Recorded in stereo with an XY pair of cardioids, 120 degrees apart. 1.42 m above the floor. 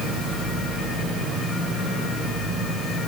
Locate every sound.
0.0 s a machine running: 65° right, 8.5 m